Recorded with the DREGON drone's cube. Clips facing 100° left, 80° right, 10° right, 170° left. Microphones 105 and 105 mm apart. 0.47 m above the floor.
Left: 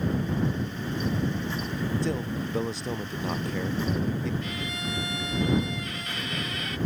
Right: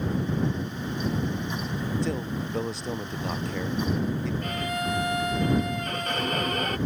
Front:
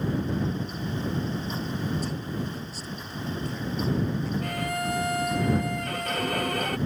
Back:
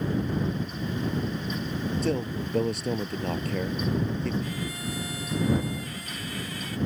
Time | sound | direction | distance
2.0 | a man speaking | 170° right | ?
4.4 | a violin | 40° right | ?